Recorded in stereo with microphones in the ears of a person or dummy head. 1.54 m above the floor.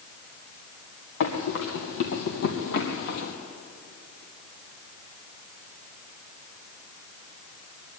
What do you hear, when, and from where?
1.2 s running footsteps: 60° left (ahead or behind), 3.5 m; by 3.3 s 55° left (ahead or behind), 3 m